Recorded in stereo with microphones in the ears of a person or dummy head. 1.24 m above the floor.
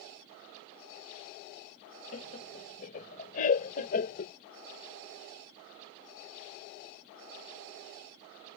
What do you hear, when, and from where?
2.1 s laughter: 45° left (ahead or behind); by 4.3 s 50° left (ahead or behind)